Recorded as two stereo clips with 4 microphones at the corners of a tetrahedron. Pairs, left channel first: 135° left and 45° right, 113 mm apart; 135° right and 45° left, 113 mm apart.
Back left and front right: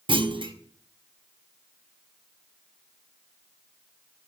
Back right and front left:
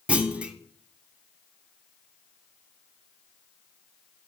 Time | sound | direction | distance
0.1 | a clunk | 30° right | 0.7 m